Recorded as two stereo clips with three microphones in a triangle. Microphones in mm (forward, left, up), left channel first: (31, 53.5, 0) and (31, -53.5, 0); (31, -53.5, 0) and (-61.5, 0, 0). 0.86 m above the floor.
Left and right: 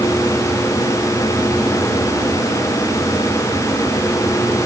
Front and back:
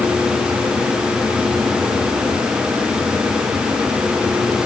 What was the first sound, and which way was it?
Only background noise.